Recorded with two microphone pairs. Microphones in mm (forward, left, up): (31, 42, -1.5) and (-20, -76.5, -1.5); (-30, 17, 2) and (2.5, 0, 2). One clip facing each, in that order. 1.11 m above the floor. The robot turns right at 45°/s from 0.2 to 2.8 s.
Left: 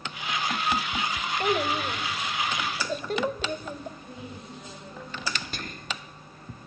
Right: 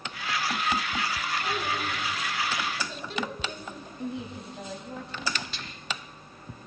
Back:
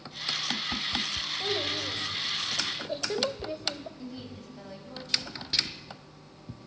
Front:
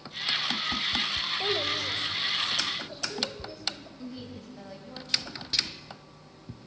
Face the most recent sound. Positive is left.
turn(degrees=75)